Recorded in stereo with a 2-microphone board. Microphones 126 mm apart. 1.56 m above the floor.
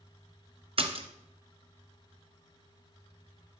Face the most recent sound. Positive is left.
turn(degrees=-45)  # may be behind; listen again after turning